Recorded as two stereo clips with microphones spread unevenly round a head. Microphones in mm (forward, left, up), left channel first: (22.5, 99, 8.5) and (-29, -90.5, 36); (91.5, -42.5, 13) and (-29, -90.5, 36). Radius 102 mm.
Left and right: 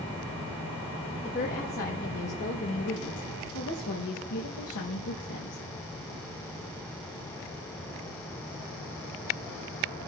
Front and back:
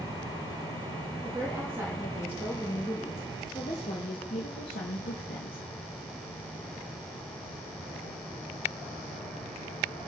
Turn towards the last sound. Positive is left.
turn(degrees=45)